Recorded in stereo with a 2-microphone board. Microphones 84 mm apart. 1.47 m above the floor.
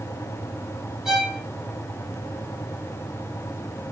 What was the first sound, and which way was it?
A violin, 5° right (ahead or behind).